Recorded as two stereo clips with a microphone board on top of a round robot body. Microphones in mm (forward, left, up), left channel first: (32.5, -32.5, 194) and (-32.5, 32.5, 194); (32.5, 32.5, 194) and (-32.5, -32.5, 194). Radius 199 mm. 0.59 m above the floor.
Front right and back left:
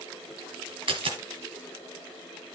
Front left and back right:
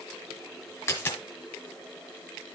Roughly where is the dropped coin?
Left.